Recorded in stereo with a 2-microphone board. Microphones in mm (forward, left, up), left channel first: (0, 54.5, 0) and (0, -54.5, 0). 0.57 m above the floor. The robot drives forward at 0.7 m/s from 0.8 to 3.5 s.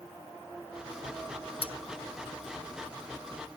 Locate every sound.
1.6 s cutlery clinking: 55° left (ahead or behind); by 1.7 s 50° left (ahead or behind)